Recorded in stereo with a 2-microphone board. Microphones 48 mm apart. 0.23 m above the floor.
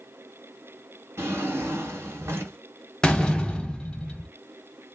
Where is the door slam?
15° left (ahead or behind), 0.7 m.